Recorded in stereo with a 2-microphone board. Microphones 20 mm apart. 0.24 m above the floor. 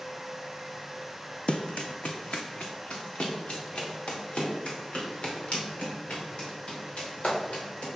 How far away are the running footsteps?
About 0.5 m.